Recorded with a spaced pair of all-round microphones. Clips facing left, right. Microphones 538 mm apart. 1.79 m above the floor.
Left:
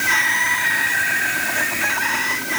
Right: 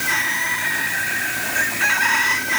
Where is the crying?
I don't hear crying.